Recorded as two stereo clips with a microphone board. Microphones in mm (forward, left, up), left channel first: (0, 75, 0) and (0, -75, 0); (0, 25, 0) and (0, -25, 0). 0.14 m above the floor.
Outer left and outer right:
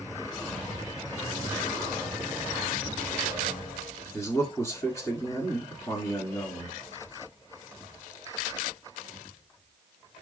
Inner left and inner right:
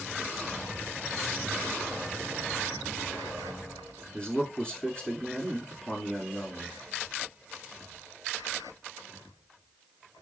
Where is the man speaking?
25° left (ahead or behind), 2.0 m.